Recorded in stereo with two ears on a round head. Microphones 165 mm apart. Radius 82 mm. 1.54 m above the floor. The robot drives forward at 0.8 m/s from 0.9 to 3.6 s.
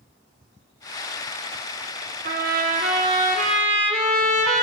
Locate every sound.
2.2 s a trumpet: 55° right (ahead or behind), 1.5 m; by 4.6 s 35° right (ahead or behind), 2.0 m